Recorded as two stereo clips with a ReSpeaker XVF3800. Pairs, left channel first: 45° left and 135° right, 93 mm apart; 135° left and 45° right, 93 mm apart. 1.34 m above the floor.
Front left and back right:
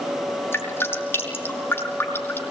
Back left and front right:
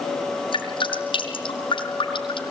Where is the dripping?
110° left, 5.5 m.